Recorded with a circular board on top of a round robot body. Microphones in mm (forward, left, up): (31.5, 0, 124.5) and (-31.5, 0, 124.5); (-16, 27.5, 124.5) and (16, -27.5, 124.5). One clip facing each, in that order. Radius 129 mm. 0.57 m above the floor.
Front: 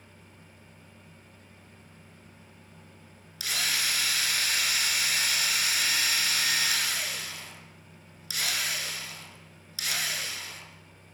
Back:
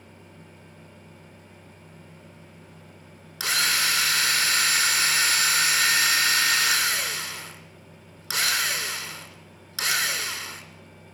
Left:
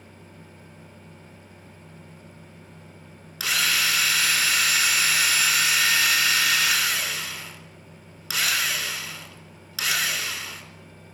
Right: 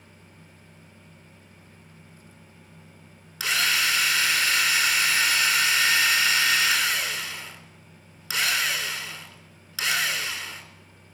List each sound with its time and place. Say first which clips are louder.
3.4 s a drill: back 6 dB, even; 155° right, 3 m